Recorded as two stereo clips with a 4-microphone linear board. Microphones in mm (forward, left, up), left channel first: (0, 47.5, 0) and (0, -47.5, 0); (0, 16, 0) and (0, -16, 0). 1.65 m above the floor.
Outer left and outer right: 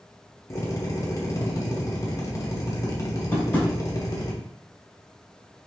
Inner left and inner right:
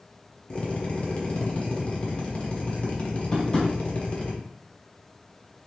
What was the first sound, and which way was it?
A drill, 30° left (ahead or behind).